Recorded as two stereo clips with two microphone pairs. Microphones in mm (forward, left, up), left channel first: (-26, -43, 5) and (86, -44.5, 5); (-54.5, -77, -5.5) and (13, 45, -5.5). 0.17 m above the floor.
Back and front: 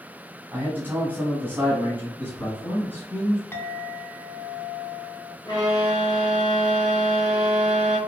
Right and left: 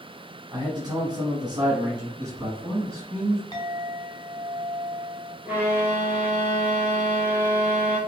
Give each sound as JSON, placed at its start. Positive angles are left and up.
{"t": 0.5, "sound": "a man speaking", "azimuth_deg": 50, "distance_m": 1.1}
{"t": 2.2, "sound": "a man speaking", "azimuth_deg": 115, "distance_m": 1.3}
{"t": 3.5, "sound": "a clink", "azimuth_deg": -125, "distance_m": 0.9}
{"t": 5.5, "sound": "a violin", "azimuth_deg": 135, "distance_m": 1.2}